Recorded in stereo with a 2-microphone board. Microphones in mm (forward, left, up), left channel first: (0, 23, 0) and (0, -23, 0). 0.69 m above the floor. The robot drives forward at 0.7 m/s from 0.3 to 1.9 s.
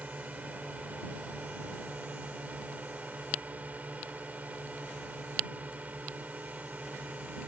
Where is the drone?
30° right (ahead or behind); by 7.5 s 35° right (ahead or behind).